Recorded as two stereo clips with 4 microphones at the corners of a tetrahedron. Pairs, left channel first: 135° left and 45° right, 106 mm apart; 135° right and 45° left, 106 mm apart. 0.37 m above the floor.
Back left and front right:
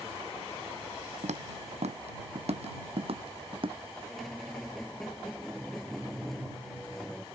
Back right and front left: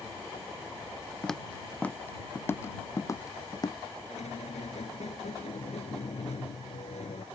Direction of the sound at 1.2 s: 50° right.